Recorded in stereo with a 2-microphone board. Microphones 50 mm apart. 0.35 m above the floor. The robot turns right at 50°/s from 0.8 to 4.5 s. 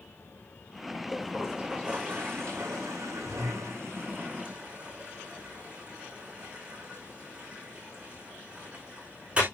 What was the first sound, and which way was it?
A toilet flushing, 15° left (ahead or behind).